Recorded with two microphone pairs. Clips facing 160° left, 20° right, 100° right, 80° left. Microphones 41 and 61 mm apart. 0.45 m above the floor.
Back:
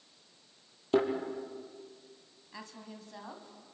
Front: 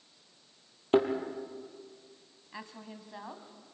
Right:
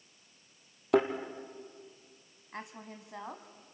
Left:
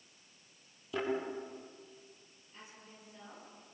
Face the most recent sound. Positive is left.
turn(degrees=-90)